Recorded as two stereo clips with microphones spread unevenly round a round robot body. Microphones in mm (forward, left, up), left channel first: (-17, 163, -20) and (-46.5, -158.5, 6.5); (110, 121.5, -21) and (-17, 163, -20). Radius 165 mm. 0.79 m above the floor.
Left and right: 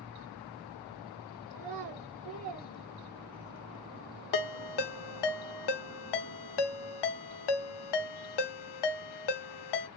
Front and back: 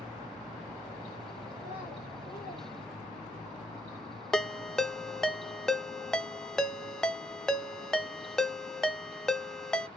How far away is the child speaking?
About 1.6 m.